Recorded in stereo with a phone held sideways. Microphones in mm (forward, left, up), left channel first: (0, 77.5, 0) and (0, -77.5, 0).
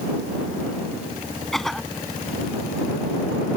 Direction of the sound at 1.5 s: Centre (ahead or behind).